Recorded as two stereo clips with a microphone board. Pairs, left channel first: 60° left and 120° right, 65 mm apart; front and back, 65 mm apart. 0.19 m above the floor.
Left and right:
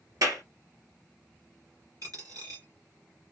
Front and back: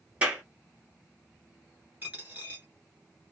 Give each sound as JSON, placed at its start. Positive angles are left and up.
{"t": 0.2, "sound": "a clap", "azimuth_deg": -115, "distance_m": 2.0}
{"t": 2.0, "sound": "a dropped coin", "azimuth_deg": -115, "distance_m": 1.5}